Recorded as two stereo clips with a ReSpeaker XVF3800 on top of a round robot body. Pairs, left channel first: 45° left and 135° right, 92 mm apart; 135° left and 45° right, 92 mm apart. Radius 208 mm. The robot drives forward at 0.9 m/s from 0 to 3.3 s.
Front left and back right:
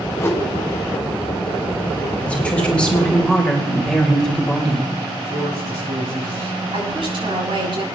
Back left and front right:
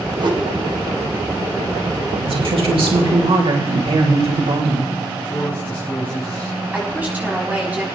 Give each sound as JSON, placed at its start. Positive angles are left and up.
{"t": 0.2, "sound": "a whoosh", "azimuth_deg": -15, "distance_m": 2.0}
{"t": 2.2, "sound": "a woman speaking", "azimuth_deg": -30, "distance_m": 4.0}
{"t": 5.2, "sound": "a man speaking", "azimuth_deg": -160, "distance_m": 4.5}
{"t": 6.7, "sound": "a woman speaking", "azimuth_deg": -120, "distance_m": 6.5}